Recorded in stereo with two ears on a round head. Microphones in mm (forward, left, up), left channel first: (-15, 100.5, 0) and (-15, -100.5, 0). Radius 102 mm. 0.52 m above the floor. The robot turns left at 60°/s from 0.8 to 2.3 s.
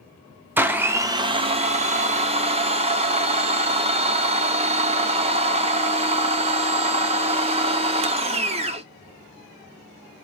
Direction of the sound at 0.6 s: 10° right (ahead or behind).